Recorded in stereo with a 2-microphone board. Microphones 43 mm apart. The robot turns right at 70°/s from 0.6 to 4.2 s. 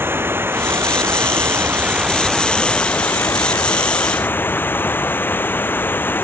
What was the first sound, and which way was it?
Running water, 120° right.